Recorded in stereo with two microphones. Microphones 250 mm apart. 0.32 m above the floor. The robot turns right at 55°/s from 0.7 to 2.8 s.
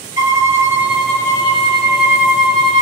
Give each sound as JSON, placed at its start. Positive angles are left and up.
{"t": 0.2, "sound": "a violin", "azimuth_deg": -15, "distance_m": 0.7}